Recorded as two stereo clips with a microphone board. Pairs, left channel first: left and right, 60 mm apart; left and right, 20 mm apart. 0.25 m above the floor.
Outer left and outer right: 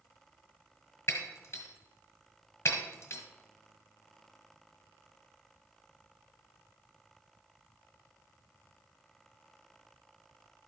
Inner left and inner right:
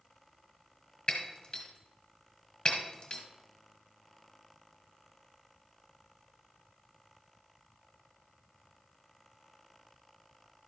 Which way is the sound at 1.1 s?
45° left (ahead or behind).